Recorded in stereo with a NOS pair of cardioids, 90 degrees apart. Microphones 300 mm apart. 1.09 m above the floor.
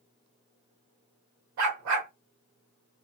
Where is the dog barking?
70° right, 1.4 m.